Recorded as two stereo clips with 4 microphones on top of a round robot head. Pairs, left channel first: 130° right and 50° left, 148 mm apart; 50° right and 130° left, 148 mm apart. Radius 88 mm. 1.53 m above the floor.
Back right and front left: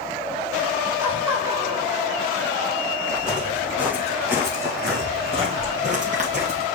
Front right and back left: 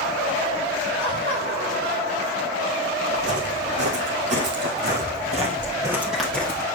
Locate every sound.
1.0 s laughter: 125° left, 4.5 m; by 2.9 s 110° left, 3.5 m
3.1 s footsteps: 135° left, 4.5 m; by 6.7 s 15° left, 2 m